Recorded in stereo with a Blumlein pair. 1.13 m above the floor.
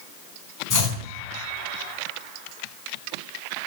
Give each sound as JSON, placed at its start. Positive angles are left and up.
{"t": 0.7, "sound": "chopping", "azimuth_deg": 25, "distance_m": 4.0}